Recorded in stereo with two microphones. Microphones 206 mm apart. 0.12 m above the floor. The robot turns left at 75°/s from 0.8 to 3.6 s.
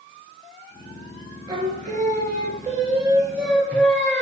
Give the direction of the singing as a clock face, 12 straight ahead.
1 o'clock.